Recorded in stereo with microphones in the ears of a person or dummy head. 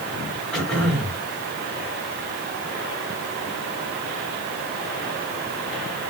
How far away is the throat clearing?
About 2.5 m.